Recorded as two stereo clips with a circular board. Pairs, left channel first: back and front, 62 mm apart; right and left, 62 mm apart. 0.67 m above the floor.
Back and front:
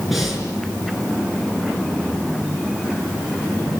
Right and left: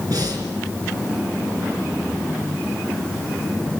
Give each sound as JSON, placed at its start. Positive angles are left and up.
{"t": 0.1, "sound": "breathing", "azimuth_deg": 90, "distance_m": 5.5}